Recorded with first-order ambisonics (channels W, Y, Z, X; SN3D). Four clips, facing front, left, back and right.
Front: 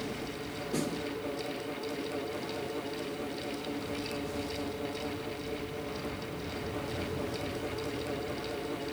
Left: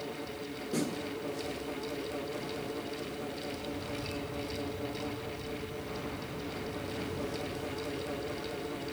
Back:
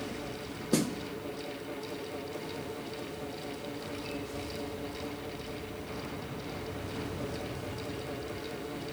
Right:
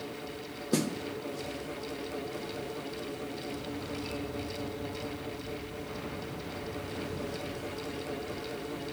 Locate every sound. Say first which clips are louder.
0.7 s a snare drum: right 4 dB, back 4 dB; 140° right, 0.9 m